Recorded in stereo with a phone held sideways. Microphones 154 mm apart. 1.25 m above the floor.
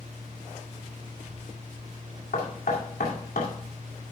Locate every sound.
0.0 s a fan: 60° right (ahead or behind), 1.4 m
2.3 s knocking: 85° left, 2.5 m